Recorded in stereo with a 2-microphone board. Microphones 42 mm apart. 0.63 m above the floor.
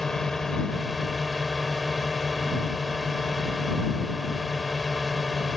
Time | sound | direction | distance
0.0 | a drone | 10° left (ahead or behind) | ?